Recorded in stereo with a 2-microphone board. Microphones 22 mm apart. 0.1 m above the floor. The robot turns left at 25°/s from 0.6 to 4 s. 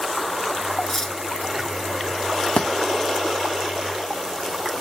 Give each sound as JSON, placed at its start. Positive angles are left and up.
{"t": 0.8, "sound": "cutlery clinking", "side_deg": 25, "distance_m": 0.7}
{"t": 2.6, "sound": "a thud", "side_deg": 65, "distance_m": 1.0}